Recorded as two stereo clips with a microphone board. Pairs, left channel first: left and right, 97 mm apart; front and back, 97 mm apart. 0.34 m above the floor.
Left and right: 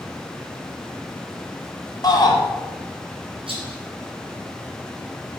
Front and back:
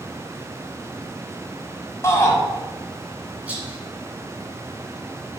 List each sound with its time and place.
2.0 s a shout: 55° left, 1.7 m
3.5 s a rattle: 105° right, 2 m